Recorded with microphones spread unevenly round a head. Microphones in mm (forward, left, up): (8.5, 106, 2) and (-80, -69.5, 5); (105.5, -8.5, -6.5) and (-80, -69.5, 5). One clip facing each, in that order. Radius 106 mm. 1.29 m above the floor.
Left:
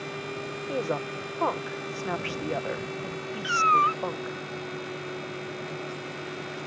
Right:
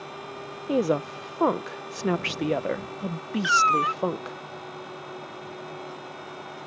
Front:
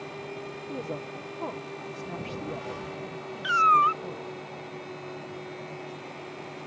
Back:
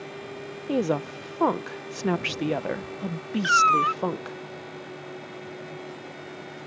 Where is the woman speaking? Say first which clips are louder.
Right 7 dB, back 12 dB; 160° right.